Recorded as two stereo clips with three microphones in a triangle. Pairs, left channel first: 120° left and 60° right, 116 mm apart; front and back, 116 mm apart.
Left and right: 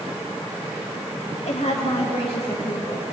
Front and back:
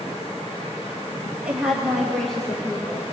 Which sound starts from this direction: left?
A woman speaking, at 1.4 s.